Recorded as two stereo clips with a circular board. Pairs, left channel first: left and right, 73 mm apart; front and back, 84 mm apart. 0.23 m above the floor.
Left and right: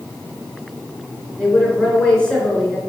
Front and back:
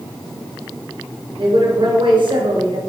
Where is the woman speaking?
170° left, 3 m.